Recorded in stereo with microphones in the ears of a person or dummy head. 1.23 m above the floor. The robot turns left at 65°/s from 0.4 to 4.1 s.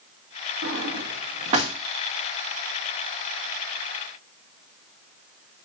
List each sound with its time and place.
0.6 s a drawer: 70° right (ahead or behind), 1.0 m; by 1.7 s 25° right (ahead or behind), 1.0 m